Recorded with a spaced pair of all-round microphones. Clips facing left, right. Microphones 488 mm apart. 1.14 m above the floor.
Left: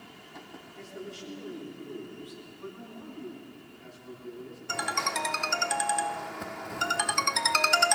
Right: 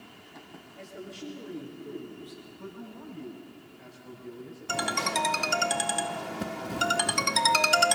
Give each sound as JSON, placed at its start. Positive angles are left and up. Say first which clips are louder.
{"t": 0.8, "sound": "a man speaking", "louder": "even", "side_deg": -80, "distance_m": 3.5}
{"t": 2.6, "sound": "a man speaking", "louder": "right 1 dB", "side_deg": -80, "distance_m": 5.5}
{"t": 4.7, "sound": "a ringtone", "louder": "right 6 dB", "side_deg": -55, "distance_m": 0.5}